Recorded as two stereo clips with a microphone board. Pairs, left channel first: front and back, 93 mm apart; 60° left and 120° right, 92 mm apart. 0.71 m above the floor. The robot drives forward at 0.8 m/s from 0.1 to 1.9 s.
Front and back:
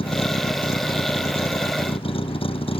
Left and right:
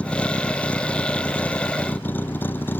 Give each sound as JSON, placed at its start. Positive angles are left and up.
{"t": 0.0, "sound": "a vehicle", "azimuth_deg": -15}